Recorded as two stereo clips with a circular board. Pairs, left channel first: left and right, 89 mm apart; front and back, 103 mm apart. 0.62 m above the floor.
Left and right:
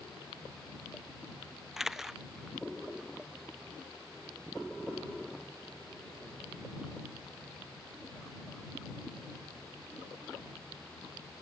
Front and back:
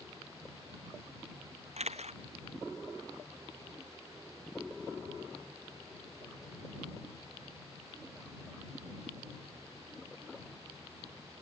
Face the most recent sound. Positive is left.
turn(degrees=-175)